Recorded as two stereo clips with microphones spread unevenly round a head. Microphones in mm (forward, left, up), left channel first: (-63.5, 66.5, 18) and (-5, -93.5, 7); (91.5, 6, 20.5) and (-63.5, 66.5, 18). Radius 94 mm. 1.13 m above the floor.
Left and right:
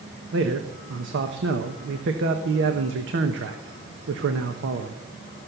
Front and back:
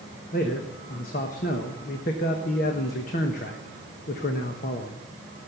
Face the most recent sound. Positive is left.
turn(degrees=-65)